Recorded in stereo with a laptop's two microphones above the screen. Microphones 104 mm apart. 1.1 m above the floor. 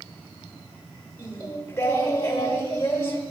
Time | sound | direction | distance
1.2 | singing | 20° left (ahead or behind) | 1.5 m